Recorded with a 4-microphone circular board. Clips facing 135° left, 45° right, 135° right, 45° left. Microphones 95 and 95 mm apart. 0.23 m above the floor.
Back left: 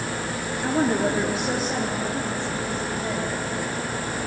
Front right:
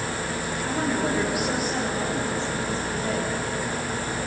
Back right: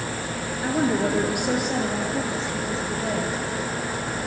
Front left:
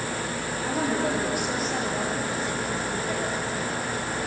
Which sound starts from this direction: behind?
A woman speaking, at 0.6 s.